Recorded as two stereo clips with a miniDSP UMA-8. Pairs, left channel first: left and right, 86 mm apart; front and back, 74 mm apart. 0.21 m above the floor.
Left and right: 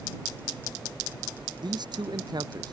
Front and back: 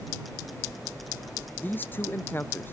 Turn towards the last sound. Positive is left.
turn(degrees=-60)